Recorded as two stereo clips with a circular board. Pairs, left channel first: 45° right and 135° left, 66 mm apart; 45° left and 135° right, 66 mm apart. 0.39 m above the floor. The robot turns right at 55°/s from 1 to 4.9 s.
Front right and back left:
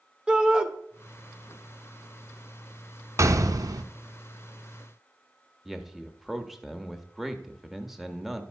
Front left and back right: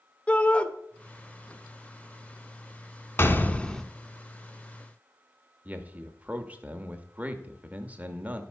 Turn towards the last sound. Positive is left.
turn(degrees=-145)